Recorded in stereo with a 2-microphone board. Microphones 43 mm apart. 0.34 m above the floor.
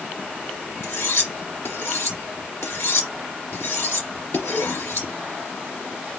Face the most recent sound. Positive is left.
turn(degrees=75)  # may be behind; listen again after turning